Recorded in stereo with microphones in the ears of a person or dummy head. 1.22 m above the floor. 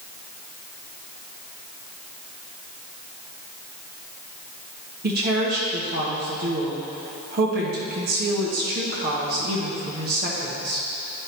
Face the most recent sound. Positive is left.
turn(degrees=-50)  # may be behind; listen again after turning